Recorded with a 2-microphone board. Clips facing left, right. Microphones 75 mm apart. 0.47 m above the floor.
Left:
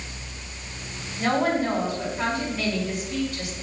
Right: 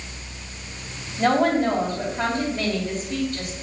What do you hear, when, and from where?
1.2 s a woman speaking: 45° right (ahead or behind), 3 m